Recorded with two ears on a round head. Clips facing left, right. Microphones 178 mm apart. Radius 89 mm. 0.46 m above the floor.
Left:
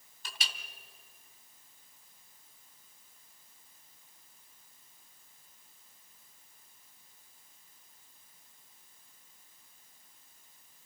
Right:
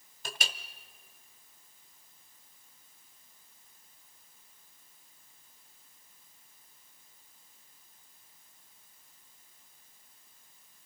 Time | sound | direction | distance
0.2 | a clink | 45° right (ahead or behind) | 1.2 m